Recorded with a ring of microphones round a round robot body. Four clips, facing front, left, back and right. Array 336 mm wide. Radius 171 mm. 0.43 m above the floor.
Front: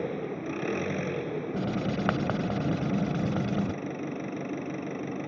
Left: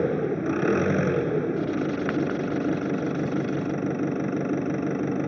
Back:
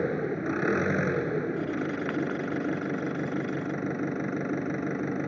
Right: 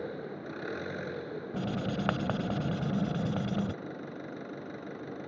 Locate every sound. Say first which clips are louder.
0.0 s an engine running: left 14 dB, back 4 dB; 105° left
1.5 s writing: left 8 dB, even; 25° right